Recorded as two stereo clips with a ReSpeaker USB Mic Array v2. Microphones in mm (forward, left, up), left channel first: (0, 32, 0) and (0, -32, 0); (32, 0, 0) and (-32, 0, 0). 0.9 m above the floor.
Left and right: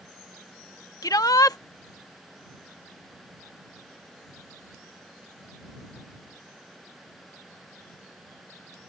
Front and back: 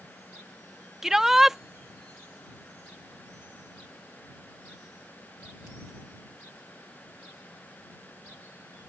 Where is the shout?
95° left.